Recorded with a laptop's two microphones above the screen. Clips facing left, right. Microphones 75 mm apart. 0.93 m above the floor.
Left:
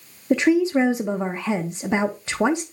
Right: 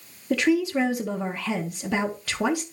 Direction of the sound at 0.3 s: 25° left (ahead or behind).